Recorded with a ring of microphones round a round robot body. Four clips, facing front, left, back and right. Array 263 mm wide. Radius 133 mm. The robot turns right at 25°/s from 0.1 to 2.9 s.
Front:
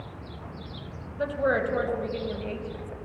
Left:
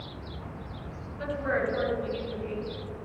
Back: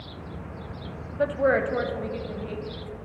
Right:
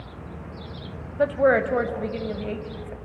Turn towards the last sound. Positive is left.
turn(degrees=-70)